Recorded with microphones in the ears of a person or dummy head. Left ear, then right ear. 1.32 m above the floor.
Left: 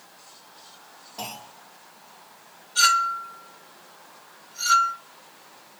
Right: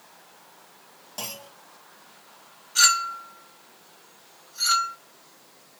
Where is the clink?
45° right (ahead or behind), 1.3 m.